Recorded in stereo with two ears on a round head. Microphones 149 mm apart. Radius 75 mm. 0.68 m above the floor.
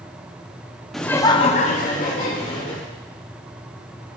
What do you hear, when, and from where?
0.9 s laughter: centre (ahead or behind), 0.7 m; by 2.8 s 50° left (ahead or behind), 1.8 m